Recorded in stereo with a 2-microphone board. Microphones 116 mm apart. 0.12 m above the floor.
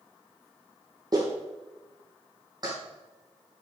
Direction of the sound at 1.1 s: 35° right (ahead or behind).